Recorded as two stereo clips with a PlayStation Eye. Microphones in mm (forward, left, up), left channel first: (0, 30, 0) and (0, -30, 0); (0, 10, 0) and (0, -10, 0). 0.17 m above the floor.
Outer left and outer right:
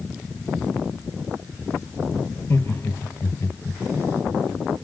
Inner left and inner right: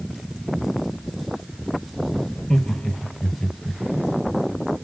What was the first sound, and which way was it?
Laughter, 45° left (ahead or behind).